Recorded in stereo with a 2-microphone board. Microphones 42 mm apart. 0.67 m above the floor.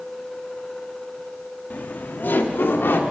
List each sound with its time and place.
1.7 s laughter: 40° left (ahead or behind), 0.9 m; by 3.0 s 60° left (ahead or behind), 1.5 m